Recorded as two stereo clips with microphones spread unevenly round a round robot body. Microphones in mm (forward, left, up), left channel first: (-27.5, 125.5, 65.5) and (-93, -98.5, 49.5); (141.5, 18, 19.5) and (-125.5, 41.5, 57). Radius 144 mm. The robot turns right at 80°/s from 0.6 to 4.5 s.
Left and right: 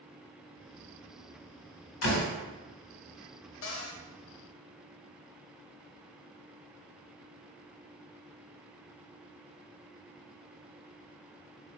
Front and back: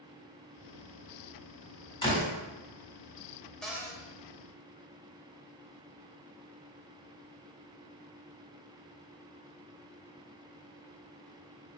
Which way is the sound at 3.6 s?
75° left.